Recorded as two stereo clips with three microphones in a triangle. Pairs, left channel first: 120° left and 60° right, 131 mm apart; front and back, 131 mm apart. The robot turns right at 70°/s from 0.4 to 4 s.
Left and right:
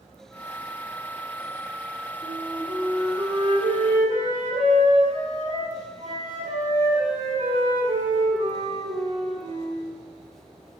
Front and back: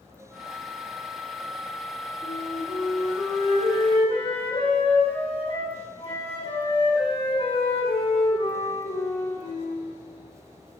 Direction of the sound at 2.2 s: 165° right.